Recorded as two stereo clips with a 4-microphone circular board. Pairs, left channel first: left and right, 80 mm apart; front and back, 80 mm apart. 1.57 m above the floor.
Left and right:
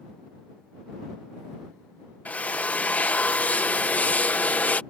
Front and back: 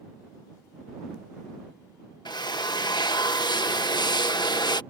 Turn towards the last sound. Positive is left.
turn(degrees=20)